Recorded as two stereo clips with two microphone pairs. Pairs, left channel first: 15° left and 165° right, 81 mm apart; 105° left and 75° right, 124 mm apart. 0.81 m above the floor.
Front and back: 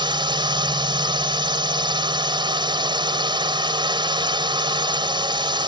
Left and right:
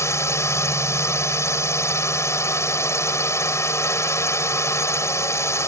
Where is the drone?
170° left.